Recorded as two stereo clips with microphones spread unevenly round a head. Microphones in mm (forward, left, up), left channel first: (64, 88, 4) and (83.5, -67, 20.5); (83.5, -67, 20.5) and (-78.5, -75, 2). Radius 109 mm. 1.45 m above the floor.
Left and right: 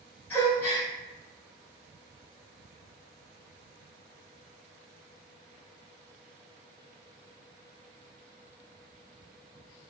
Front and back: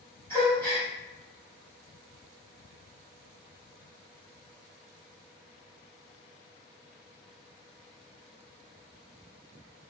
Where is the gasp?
20° left, 1.2 m.